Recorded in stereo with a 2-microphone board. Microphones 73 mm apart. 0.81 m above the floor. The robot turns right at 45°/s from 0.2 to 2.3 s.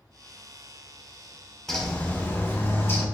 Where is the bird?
5° left (ahead or behind), 1.8 m; by 3.0 s 35° left (ahead or behind), 1.8 m.